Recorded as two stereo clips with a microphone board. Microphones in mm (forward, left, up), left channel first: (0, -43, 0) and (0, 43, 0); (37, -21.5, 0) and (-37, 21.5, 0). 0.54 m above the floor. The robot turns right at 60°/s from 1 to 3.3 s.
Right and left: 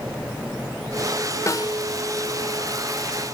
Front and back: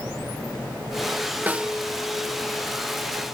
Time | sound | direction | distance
1.5 | a snare drum | 140° right | 0.5 m